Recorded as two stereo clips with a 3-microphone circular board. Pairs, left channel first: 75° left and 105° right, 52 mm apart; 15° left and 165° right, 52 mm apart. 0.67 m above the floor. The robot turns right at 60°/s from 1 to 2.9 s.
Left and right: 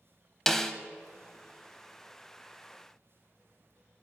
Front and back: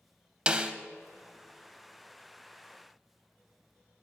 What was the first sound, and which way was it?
A snare drum, 150° left.